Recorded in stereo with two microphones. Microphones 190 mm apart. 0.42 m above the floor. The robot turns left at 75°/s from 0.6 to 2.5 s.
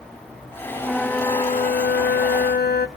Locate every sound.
0.8 s a flute: 170° right, 0.6 m; by 2.9 s 65° left, 0.6 m